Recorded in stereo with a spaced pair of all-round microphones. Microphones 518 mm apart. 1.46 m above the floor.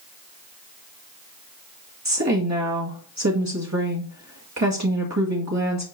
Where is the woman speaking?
30° right (ahead or behind), 2 m.